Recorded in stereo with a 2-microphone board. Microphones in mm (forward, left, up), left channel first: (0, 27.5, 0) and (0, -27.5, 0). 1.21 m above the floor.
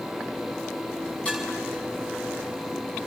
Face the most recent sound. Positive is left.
turn(degrees=15)  # may be behind; listen again after turning